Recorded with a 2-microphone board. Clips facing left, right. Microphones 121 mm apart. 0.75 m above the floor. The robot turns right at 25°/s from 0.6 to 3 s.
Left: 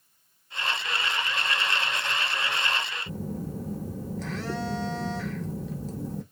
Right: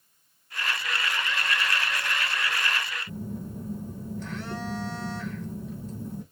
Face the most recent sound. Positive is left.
turn(degrees=80)